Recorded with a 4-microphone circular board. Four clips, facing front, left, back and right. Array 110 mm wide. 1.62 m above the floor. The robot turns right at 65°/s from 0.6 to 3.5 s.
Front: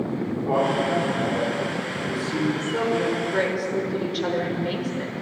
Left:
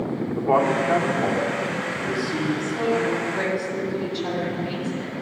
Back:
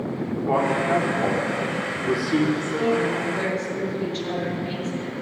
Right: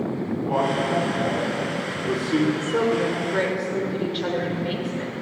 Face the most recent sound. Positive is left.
turn(degrees=-35)